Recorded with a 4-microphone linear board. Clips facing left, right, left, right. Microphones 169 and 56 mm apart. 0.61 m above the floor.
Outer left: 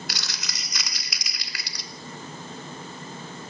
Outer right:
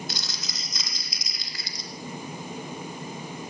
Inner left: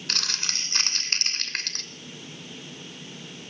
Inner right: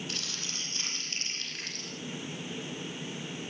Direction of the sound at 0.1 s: 75° left (ahead or behind).